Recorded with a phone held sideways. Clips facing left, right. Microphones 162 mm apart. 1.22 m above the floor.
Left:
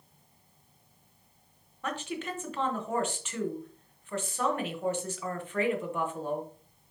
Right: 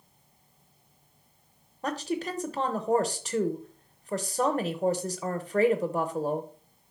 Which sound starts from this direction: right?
A woman speaking, at 1.8 s.